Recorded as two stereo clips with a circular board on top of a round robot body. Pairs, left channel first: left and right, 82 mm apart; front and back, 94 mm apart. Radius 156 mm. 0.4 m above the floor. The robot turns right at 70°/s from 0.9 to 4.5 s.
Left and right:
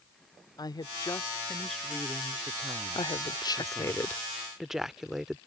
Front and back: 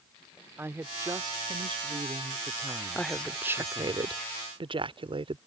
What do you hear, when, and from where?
0.6 s a woman speaking: 120° left; by 4.0 s 30° right
3.0 s a woman speaking: 80° left; by 5.4 s 175° right